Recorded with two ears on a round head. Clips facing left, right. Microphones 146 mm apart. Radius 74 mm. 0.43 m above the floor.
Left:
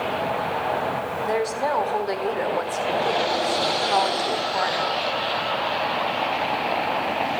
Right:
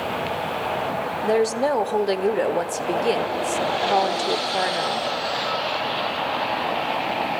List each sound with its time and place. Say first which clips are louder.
1.2 s a woman speaking: right 5 dB; 35° right (ahead or behind), 1.4 m